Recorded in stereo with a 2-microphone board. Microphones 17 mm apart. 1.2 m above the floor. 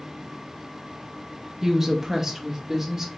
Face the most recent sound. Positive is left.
turn(degrees=-20)  # may be behind; listen again after turning